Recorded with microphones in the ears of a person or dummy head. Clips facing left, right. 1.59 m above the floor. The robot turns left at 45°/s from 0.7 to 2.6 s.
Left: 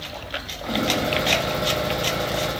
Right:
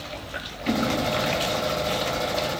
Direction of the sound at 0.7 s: 70° right (ahead or behind).